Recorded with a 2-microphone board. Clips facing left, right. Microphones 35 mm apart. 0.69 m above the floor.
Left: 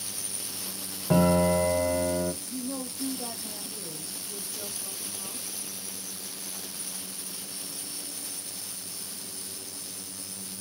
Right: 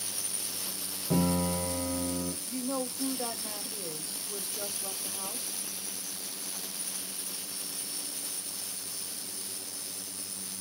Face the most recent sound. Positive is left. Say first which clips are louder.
# right 1 dB
turn(degrees=-65)  # may be behind; listen again after turning